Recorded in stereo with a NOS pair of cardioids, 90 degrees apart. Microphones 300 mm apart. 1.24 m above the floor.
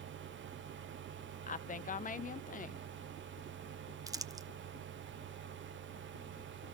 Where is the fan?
40° right, 0.8 m.